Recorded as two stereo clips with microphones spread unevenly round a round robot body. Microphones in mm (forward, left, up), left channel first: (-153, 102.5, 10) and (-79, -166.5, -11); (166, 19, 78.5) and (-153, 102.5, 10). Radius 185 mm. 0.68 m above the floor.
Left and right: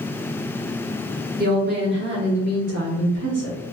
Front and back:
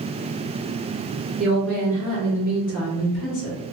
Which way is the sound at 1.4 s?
120° right.